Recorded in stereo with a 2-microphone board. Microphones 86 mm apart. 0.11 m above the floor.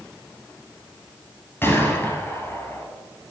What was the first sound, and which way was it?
A gunshot, 25° left (ahead or behind).